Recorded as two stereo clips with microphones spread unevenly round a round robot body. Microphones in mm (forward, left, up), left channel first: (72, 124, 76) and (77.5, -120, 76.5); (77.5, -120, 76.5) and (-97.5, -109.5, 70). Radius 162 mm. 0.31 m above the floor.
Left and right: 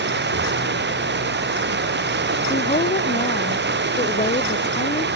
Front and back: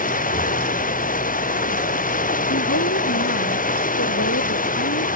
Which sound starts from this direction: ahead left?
A woman speaking, at 2.5 s.